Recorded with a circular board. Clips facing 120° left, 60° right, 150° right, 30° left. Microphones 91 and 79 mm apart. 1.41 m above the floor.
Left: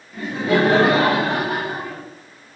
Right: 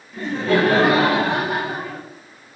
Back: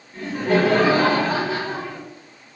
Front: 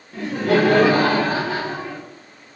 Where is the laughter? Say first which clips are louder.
Even, front 2 dB; 30° left, 0.7 m; by 2.0 s 80° left, 1.2 m.